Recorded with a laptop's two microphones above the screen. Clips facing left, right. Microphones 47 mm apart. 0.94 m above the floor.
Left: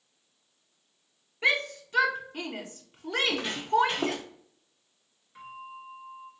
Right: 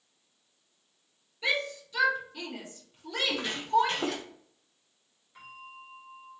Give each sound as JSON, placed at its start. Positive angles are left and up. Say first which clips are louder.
{"t": 1.4, "sound": "a shout", "louder": "left 4 dB", "side_deg": 45, "distance_m": 0.7}
{"t": 3.1, "sound": "footsteps", "louder": "left 2 dB", "side_deg": 10, "distance_m": 2.0}
{"t": 5.3, "sound": "a bell", "louder": "left 4 dB", "side_deg": 5, "distance_m": 1.8}